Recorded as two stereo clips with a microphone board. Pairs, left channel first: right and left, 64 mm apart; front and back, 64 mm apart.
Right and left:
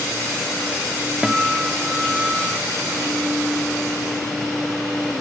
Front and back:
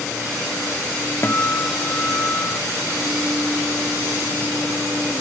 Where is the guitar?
20° left, 0.8 m.